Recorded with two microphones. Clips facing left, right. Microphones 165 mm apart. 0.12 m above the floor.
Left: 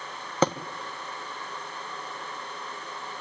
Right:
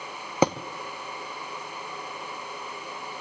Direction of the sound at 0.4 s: 10° right (ahead or behind).